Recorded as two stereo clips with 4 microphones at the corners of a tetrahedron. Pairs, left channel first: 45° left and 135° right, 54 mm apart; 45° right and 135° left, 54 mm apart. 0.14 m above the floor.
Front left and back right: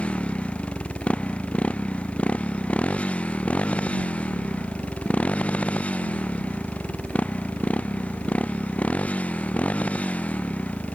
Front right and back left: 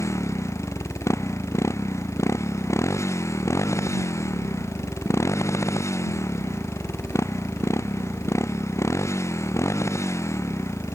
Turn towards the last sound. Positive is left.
turn(degrees=-20)